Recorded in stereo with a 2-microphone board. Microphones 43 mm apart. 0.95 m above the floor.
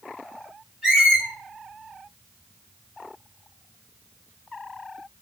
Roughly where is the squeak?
Centre.